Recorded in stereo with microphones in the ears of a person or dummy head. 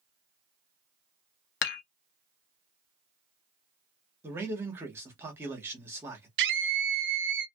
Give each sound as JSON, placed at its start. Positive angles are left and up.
{"t": 1.6, "sound": "dishes clattering", "side_deg": 55, "distance_m": 0.8}
{"t": 4.2, "sound": "a man speaking", "side_deg": -10, "distance_m": 1.1}
{"t": 6.4, "sound": "a scream", "side_deg": -55, "distance_m": 0.6}